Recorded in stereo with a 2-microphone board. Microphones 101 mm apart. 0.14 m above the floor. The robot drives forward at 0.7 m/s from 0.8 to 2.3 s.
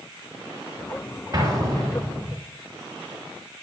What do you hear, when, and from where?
1.3 s an explosion: 40° right (ahead or behind), 3.5 m; by 2.4 s 35° right (ahead or behind), 4 m